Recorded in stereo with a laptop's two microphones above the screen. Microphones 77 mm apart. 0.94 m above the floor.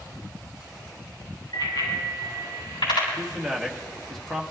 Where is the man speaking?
Centre (ahead or behind), 1.3 m.